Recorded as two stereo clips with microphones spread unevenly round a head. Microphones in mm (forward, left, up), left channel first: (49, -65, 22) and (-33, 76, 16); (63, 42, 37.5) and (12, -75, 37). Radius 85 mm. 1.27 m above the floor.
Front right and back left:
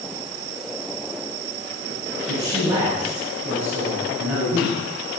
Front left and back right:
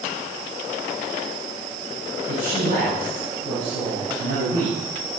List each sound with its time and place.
2.3 s a man speaking: 165° right, 7.5 m; by 5.2 s 155° right, 7.5 m